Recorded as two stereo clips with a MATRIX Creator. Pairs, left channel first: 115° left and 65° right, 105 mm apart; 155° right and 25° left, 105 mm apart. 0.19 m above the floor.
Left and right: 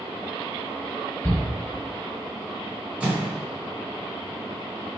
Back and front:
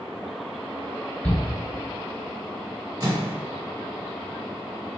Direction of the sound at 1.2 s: 145° left.